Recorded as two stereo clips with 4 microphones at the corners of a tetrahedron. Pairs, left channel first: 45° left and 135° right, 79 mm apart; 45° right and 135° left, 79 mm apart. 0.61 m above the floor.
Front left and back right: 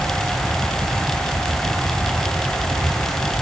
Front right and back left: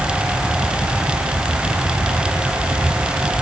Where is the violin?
No violin in this recording.